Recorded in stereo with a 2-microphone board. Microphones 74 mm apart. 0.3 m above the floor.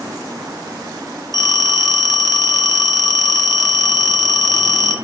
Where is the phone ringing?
50° left (ahead or behind), 1.2 m.